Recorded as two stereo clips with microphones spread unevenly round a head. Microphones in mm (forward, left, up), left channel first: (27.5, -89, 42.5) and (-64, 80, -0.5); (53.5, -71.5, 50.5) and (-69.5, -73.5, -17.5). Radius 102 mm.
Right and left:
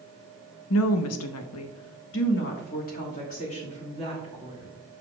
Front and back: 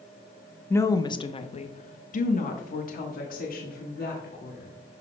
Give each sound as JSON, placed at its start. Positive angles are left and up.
{"t": 0.7, "sound": "a woman speaking", "azimuth_deg": -80, "distance_m": 1.0}